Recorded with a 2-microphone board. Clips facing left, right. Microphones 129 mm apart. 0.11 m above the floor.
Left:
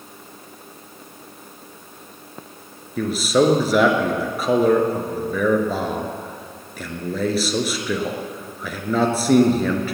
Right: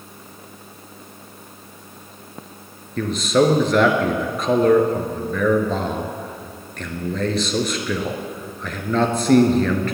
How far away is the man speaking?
About 1.6 m.